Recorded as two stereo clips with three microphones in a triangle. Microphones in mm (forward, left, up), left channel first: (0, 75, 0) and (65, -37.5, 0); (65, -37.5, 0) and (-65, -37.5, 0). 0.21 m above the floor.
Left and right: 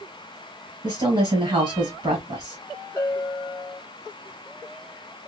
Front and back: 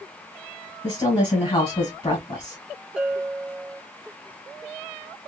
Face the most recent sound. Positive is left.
turn(degrees=105)